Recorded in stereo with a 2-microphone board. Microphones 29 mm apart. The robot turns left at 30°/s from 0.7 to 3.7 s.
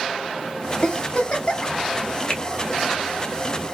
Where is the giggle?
45° left (ahead or behind), 1.3 m; by 1.7 s 35° left (ahead or behind), 1.3 m.